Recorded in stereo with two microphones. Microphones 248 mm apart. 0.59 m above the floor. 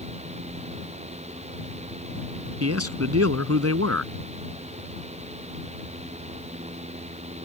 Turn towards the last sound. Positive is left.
turn(degrees=-75)  # may be behind; listen again after turning